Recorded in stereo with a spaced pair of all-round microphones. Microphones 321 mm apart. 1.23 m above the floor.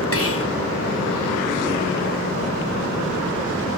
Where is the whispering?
45° left (ahead or behind), 0.8 m.